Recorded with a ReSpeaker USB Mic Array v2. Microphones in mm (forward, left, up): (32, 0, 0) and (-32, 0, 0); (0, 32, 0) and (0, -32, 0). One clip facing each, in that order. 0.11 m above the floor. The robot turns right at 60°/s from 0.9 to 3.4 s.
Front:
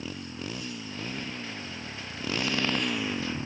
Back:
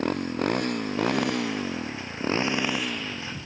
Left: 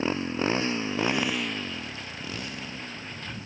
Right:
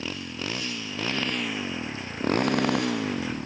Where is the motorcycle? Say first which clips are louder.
Back 12 dB, left 7 dB; 150° left; by 3.5 s 60° right.